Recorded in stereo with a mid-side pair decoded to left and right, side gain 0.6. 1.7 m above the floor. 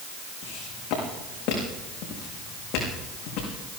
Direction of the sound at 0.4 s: 60° left.